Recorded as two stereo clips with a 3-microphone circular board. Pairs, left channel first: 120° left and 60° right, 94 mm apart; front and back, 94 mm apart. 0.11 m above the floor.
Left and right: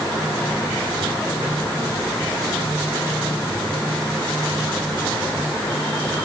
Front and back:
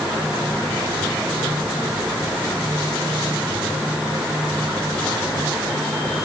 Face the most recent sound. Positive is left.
No sound to turn to.